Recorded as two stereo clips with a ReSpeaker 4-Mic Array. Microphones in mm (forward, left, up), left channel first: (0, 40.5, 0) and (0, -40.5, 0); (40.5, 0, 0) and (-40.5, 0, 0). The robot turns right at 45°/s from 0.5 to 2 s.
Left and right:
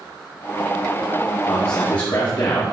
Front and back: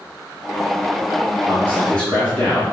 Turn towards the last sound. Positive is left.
turn(degrees=75)